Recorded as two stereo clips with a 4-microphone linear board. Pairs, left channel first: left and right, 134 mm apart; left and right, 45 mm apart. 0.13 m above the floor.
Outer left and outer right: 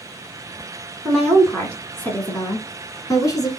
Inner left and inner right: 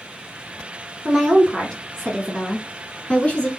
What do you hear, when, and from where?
1.1 s a woman speaking: centre (ahead or behind), 1.2 m; by 3.5 s 30° left (ahead or behind), 1.5 m